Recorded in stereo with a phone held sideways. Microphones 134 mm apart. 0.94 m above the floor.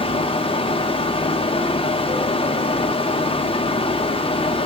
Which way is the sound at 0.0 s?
45° left (ahead or behind).